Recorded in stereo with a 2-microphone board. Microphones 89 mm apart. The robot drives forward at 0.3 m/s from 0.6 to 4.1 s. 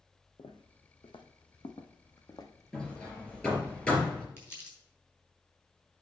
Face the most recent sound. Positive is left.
turn(degrees=25)  # may be behind; listen again after turning